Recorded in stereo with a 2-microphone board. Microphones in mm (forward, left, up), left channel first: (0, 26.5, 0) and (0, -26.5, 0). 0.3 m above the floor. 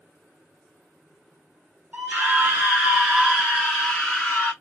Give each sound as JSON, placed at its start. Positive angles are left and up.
{"t": 1.9, "sound": "a scream", "side_deg": -35, "distance_m": 1.4}